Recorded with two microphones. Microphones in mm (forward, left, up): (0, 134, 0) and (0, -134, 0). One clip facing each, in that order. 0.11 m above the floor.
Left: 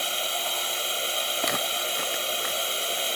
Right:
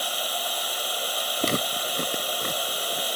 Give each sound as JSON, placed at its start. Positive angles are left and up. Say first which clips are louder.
{"t": 0.0, "sound": "a drone", "louder": "even", "side_deg": 30}
{"t": 1.4, "sound": "footsteps", "louder": "right 6 dB", "side_deg": -35}